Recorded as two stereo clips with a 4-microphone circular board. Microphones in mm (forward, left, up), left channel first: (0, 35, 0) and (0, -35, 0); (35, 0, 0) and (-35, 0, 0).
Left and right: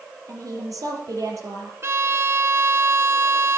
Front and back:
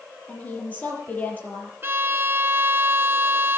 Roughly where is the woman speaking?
Ahead right.